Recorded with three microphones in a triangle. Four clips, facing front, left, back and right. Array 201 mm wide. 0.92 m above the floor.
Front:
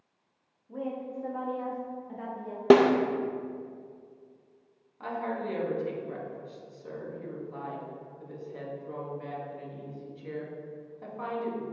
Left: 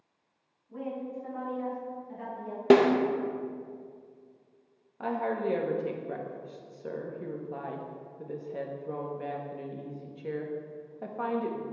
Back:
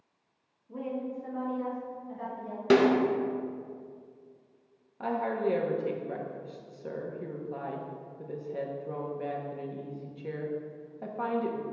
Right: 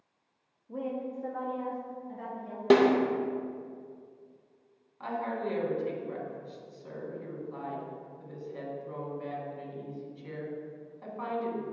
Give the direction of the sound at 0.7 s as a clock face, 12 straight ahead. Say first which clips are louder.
Right 1 dB, even; 3 o'clock.